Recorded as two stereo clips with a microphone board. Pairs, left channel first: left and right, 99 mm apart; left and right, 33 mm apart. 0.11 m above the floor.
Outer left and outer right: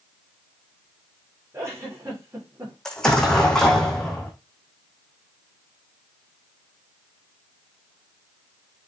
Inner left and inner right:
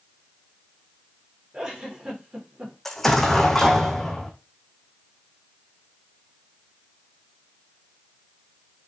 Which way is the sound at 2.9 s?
5° left (ahead or behind).